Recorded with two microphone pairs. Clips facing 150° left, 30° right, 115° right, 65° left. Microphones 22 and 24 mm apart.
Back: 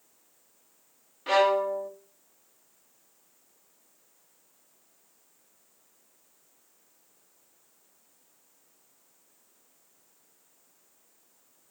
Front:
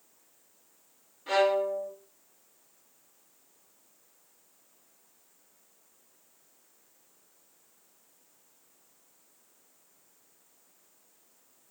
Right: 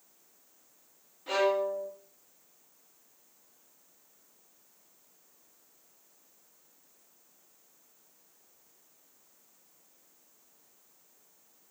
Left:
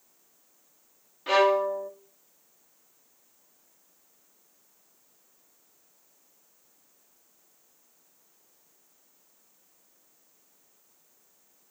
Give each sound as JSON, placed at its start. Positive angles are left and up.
{"t": 1.3, "sound": "a violin", "azimuth_deg": 110, "distance_m": 1.5}